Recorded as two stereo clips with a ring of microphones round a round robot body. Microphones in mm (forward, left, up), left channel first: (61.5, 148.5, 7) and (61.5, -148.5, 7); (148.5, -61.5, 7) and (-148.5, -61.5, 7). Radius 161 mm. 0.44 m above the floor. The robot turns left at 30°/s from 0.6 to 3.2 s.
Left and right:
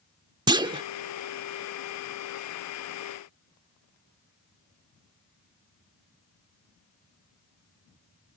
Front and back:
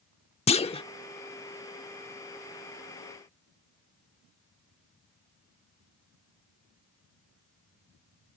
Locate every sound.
0.5 s a clunk: 35° right; by 0.8 s 45° right